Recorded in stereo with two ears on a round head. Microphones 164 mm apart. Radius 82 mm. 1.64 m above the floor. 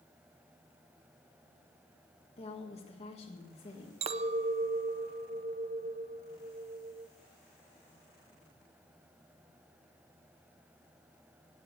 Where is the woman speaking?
35° left (ahead or behind), 1.8 m.